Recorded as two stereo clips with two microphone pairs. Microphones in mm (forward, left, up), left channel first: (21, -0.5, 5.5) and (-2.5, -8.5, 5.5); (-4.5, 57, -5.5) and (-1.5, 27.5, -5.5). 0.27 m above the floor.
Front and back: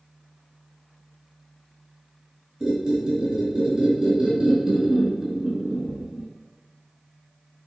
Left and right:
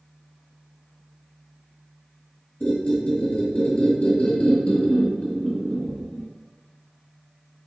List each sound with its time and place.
2.6 s a squeak: 140° left, 1.0 m